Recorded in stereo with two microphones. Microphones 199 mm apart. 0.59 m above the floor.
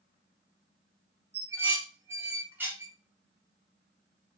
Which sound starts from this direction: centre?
Dishes clattering, at 1.3 s.